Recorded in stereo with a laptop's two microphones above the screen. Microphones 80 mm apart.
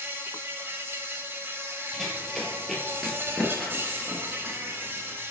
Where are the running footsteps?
5° left (ahead or behind), 1.2 m; by 5.2 s centre (ahead or behind), 1.3 m.